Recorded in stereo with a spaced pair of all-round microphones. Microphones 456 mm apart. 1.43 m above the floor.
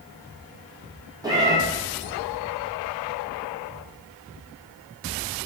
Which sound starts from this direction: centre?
A cat meowing, at 1.2 s.